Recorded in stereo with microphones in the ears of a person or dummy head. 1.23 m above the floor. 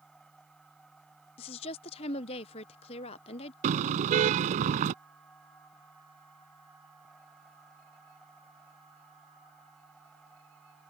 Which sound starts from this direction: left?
A woman speaking, at 1.4 s.